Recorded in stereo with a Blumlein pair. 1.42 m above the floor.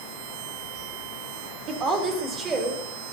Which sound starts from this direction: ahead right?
A woman speaking, at 1.7 s.